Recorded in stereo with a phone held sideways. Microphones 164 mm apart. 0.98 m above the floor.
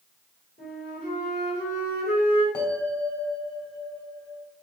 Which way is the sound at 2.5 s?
20° left (ahead or behind).